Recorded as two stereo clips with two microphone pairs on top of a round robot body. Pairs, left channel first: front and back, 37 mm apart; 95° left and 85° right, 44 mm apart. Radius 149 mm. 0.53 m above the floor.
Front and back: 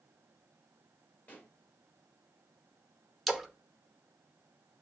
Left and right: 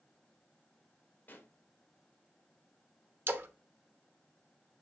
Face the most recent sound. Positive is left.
turn(degrees=-100)